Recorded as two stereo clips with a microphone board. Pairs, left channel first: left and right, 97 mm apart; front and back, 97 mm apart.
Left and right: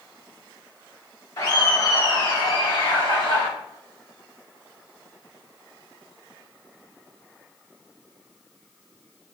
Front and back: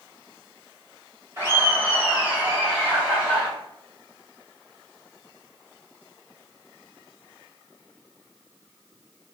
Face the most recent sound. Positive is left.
turn(degrees=90)